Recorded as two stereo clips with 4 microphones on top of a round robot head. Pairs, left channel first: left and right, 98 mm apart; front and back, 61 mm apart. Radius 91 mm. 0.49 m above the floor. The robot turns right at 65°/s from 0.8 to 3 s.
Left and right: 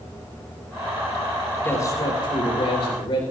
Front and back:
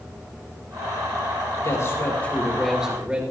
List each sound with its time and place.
1.6 s a man speaking: 25° left, 3.5 m; by 3.2 s 115° left, 3.5 m